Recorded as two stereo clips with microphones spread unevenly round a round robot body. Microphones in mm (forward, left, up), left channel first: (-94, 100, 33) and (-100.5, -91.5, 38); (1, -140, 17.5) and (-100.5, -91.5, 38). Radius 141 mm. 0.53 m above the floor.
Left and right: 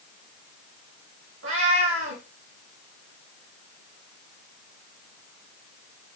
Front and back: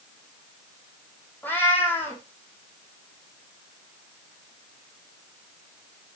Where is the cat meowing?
100° right, 5 m.